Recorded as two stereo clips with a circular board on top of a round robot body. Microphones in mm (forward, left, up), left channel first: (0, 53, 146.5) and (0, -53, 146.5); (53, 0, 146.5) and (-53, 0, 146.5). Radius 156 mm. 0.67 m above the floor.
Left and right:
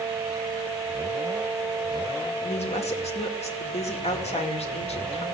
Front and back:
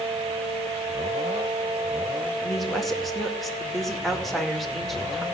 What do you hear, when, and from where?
2.4 s a woman speaking: 90° left, 2.5 m